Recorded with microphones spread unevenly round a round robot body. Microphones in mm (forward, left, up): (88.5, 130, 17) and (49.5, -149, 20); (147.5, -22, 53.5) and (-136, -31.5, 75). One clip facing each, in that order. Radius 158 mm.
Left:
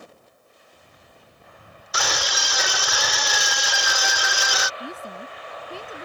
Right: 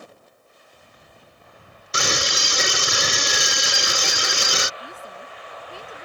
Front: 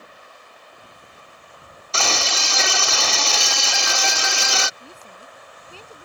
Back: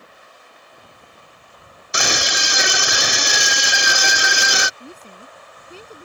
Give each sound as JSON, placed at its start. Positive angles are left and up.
{"t": 1.9, "sound": "a scream", "azimuth_deg": -115}
{"t": 4.8, "sound": "a woman speaking", "azimuth_deg": 110}